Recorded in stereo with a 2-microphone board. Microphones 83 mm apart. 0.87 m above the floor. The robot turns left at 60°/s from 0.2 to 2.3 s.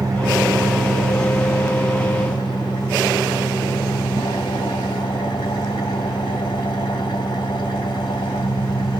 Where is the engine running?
135° right, 1.9 m; by 9.0 s 100° left, 1.9 m.